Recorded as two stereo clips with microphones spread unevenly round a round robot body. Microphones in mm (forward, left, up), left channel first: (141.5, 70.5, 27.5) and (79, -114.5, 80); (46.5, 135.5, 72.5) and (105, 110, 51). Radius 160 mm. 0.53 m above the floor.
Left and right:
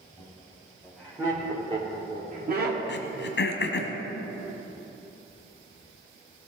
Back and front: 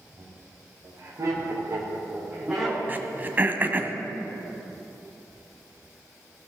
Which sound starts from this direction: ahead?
Laughter, at 0.2 s.